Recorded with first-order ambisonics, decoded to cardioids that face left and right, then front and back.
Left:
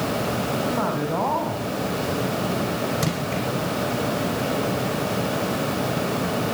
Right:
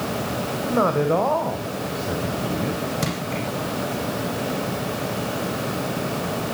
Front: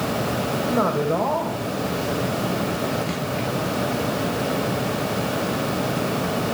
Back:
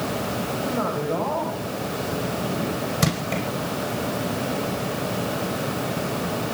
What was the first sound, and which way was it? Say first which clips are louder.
A man speaking: right 5 dB, front 5 dB; 70° right.